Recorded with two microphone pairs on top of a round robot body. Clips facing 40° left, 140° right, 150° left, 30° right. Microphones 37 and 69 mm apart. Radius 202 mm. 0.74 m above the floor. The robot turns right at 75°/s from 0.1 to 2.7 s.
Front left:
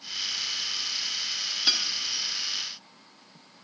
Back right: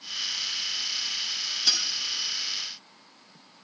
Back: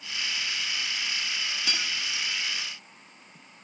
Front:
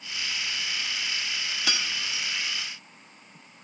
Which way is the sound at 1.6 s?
35° right.